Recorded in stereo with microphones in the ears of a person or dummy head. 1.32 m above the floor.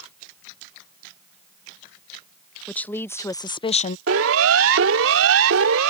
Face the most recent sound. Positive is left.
turn(degrees=-80)